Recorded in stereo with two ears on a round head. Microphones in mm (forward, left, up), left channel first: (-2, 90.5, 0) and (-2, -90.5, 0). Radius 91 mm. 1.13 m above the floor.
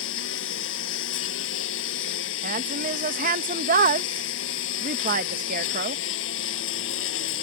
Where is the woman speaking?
40° right (ahead or behind).